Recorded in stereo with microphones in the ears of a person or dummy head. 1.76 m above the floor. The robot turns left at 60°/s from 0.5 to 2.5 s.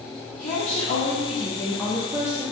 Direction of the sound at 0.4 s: 95° left.